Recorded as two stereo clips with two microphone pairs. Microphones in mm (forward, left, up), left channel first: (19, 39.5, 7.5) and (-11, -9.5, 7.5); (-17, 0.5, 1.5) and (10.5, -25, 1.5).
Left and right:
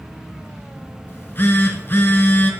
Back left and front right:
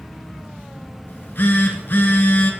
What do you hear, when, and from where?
1.1 s a phone buzzing: 110° left, 1.0 m